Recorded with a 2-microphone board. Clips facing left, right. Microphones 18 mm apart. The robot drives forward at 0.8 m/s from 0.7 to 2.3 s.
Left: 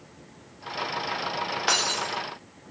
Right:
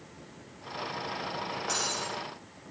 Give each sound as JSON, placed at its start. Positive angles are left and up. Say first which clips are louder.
{"t": 1.7, "sound": "breaking glass", "louder": "left 8 dB", "side_deg": 90, "distance_m": 3.5}